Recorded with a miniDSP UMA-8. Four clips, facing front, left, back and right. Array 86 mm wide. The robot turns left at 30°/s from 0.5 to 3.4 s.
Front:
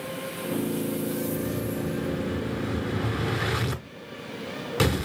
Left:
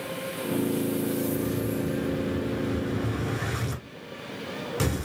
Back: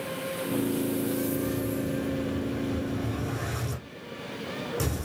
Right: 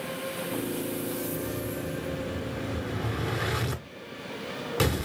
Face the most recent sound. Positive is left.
turn(degrees=-20)